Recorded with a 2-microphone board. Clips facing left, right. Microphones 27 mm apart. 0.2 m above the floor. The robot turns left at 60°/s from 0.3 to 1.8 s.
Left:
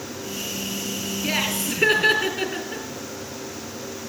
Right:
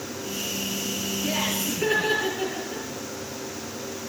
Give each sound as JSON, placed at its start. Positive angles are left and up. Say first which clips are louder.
{"t": 1.2, "sound": "laughter", "louder": "left 3 dB", "azimuth_deg": 120, "distance_m": 4.0}